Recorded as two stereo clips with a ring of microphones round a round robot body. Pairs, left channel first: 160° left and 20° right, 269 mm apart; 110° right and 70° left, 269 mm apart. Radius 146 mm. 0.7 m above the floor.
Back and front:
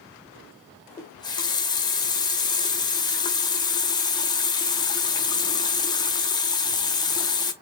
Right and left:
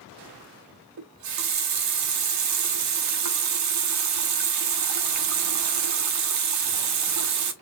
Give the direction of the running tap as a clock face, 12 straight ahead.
9 o'clock.